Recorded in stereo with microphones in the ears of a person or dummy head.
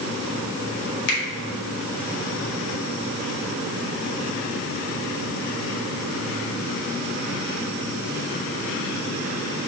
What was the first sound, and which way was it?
A finger snap, 65° left (ahead or behind).